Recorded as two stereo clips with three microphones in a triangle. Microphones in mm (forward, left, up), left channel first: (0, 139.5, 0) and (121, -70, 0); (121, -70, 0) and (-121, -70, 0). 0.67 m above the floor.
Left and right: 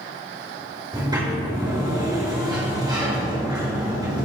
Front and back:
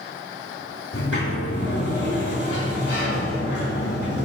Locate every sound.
0.9 s a sliding door: 10° left, 3 m